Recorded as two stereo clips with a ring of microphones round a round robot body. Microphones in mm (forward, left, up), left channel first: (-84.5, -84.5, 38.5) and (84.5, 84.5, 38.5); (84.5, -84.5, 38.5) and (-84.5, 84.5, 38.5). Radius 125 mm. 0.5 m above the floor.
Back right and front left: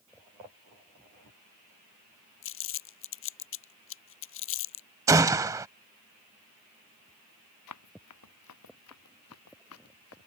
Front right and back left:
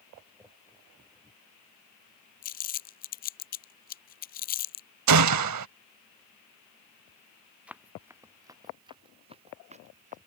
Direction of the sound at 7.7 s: 140° right.